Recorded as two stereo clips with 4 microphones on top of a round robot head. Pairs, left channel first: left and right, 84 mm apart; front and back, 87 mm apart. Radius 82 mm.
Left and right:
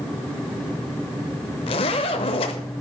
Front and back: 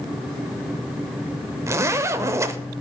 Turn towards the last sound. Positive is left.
turn(degrees=120)